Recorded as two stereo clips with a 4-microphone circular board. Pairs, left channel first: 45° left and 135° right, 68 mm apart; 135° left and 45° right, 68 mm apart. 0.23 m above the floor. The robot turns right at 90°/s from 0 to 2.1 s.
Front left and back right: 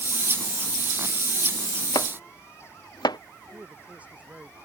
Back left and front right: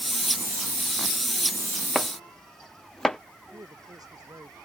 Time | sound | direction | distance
1.9 | chopping | 40° left | ?
3.5 | a man speaking | 65° right | ?